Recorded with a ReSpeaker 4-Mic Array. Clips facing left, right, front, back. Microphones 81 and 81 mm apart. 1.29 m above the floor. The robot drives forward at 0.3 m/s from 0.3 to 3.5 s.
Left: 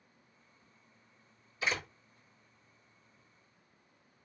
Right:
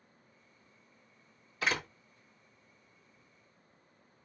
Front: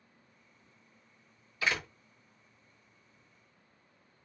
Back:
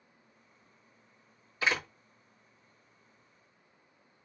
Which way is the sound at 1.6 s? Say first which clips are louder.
Right 2 dB, back 2 dB; 120° right.